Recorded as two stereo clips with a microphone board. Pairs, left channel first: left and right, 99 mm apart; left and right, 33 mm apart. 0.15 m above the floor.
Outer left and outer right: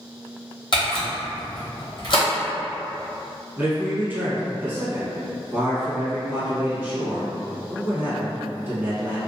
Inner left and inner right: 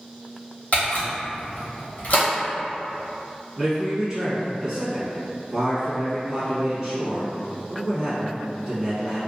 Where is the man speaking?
20° right (ahead or behind), 1.4 m.